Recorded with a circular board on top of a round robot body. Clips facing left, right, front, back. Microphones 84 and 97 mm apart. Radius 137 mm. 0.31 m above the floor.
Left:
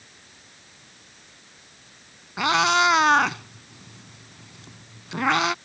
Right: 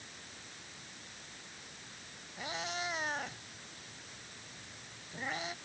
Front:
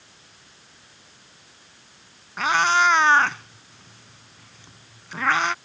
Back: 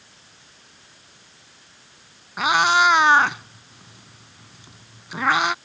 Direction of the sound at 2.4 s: 100° left.